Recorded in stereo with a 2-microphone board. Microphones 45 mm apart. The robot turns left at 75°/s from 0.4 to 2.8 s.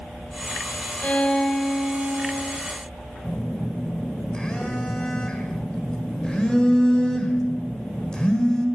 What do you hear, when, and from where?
1.0 s a violin: 45° left, 2.0 m; by 2.5 s 65° right, 2.0 m
3.2 s a phone buzzing: 15° left (ahead or behind), 1.8 m